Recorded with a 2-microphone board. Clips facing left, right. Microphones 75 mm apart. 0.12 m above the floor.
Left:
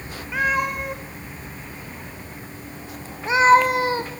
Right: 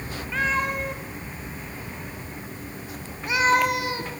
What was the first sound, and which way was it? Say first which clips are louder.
A cat meowing: left 3 dB; 10° left (ahead or behind).